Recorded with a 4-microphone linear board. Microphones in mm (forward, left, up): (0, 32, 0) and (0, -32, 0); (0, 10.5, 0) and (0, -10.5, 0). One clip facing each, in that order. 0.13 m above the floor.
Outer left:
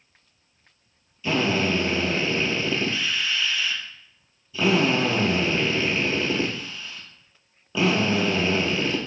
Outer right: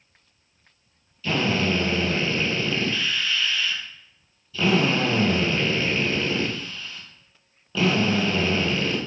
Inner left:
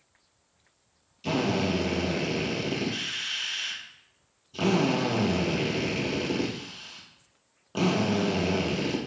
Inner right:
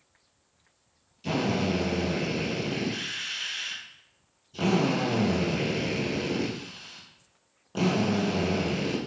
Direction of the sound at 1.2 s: 15° left (ahead or behind).